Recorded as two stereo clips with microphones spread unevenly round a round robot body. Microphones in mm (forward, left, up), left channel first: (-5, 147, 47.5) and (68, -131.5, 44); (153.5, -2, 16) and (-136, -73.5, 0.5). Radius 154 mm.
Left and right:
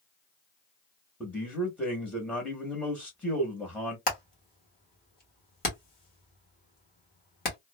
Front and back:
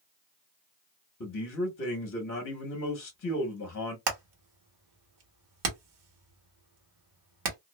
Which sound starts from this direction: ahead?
A man speaking, at 1.2 s.